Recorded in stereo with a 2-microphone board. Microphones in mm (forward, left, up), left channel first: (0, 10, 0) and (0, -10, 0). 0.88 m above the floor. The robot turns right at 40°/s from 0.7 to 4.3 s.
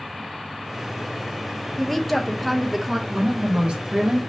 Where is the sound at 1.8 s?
15° left (ahead or behind), 0.5 m; by 3.0 s 10° right (ahead or behind), 0.5 m.